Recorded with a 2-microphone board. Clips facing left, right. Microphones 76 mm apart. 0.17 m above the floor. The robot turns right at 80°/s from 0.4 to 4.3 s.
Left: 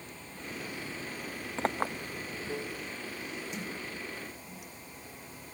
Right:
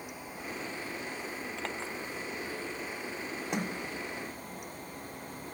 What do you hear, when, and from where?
0.0 s running water: 15° right; by 5.5 s 65° right
1.6 s a clink: 30° left (ahead or behind); by 1.9 s 60° left (ahead or behind)
3.5 s a sliding door: 75° right (ahead or behind); by 4.7 s 15° right (ahead or behind)